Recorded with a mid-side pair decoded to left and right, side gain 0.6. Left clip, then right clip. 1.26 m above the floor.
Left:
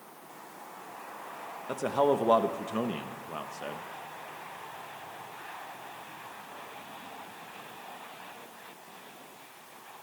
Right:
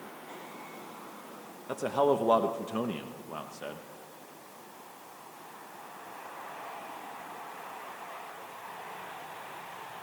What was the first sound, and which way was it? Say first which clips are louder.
A man speaking: even; 5° left.